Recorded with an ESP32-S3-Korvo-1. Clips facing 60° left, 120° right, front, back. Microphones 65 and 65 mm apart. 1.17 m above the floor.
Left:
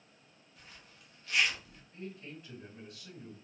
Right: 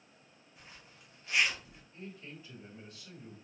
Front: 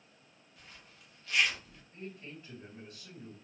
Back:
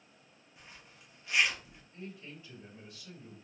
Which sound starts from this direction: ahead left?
A man speaking, at 1.9 s.